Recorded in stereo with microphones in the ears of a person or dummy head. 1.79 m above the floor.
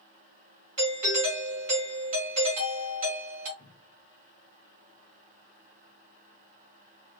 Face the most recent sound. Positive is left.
turn(degrees=60)  # may be behind; listen again after turning